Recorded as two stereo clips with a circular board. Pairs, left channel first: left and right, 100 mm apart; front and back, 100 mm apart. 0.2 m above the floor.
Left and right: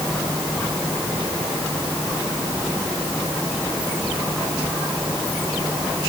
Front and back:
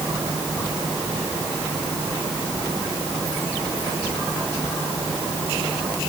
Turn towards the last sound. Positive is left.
No sound to turn to.